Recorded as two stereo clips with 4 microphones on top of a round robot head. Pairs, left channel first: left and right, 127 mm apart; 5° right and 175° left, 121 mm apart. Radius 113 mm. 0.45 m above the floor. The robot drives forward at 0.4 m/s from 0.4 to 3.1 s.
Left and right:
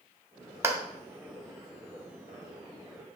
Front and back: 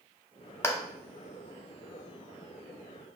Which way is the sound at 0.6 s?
45° right.